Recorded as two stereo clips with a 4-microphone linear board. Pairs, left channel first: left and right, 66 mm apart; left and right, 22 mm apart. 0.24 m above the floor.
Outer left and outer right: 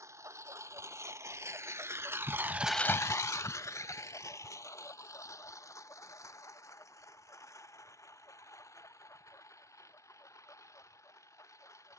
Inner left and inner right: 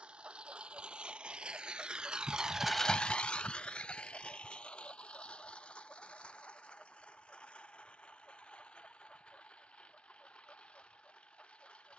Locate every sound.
0.0 s a lawn mower: 50° right (ahead or behind); by 12.0 s 50° left (ahead or behind)